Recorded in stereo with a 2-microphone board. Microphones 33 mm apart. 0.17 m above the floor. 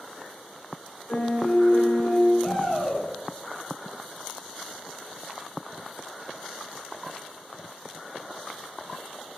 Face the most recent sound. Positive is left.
turn(degrees=5)  # may be behind; listen again after turning